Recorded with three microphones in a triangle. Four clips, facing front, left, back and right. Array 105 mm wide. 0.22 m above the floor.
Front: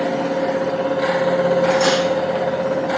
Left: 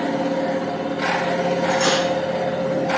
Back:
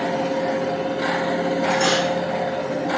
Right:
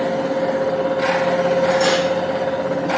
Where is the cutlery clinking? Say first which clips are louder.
Right 3 dB, front 4 dB; 25° left, 6.5 m.